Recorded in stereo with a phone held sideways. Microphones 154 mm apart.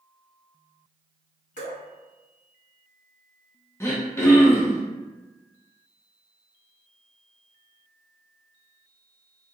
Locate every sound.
1.6 s dripping: 60° left (ahead or behind), 1.7 m
3.8 s throat clearing: 15° left (ahead or behind), 0.6 m